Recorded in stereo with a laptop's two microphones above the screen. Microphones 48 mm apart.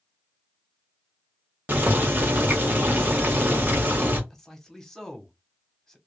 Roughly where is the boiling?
Right.